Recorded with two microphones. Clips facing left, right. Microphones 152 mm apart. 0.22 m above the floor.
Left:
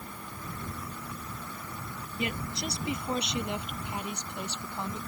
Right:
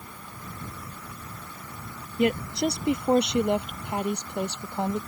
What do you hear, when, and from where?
2.2 s a woman speaking: 55° right (ahead or behind)